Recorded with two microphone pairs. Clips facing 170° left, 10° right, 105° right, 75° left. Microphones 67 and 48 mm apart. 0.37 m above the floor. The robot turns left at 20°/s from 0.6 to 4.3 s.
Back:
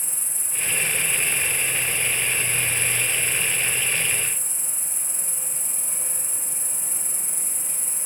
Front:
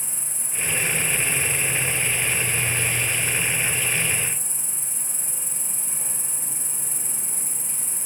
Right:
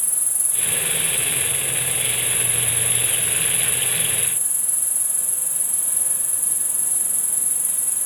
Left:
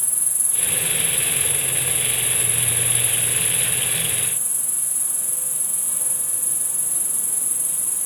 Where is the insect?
95° right, 3 m; by 8.1 s 170° right, 3 m.